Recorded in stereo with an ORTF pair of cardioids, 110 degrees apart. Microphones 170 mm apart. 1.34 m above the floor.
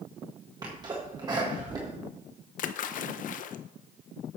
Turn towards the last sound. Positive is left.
turn(degrees=55)